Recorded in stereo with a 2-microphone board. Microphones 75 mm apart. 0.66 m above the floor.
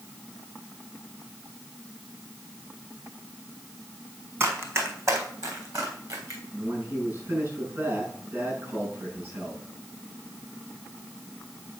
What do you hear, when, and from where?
4.4 s running footsteps: 30° right (ahead or behind), 1.8 m; by 6.4 s 55° right (ahead or behind), 3.5 m
6.5 s a man speaking: 35° right (ahead or behind), 6 m